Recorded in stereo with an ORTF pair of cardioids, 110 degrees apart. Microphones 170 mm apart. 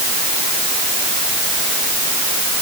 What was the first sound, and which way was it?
Only background noise.